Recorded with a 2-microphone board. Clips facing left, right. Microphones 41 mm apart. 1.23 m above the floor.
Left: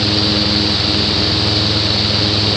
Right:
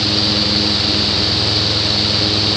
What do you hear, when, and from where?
Only background noise.